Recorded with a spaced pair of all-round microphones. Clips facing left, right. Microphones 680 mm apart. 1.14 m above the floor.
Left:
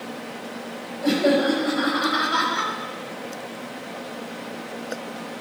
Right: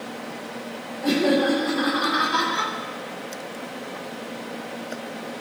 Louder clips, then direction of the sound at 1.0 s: Even; 15° left (ahead or behind).